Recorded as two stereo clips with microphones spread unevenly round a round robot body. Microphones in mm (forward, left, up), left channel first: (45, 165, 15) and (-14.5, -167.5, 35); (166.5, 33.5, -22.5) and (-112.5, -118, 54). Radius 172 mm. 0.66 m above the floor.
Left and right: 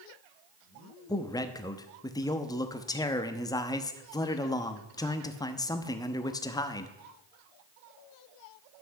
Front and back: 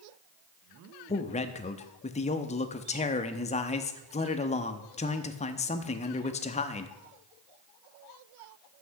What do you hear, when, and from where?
1.1 s a man speaking: 15° left, 0.8 m